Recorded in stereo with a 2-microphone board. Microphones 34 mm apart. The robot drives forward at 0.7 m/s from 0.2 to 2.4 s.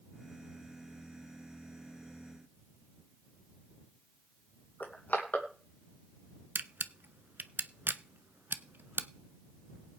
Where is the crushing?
55° left (ahead or behind), 3 m.